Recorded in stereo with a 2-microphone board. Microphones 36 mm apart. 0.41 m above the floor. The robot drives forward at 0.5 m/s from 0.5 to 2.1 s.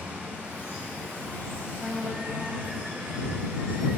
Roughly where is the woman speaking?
Right.